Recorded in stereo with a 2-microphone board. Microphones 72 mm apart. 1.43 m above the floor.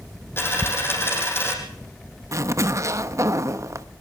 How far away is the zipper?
About 0.9 m.